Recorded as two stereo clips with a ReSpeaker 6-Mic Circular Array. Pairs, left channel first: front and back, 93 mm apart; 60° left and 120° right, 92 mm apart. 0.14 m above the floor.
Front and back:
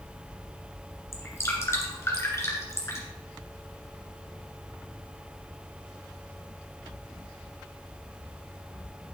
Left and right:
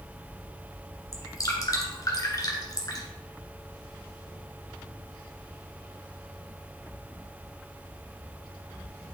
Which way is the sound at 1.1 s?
40° left.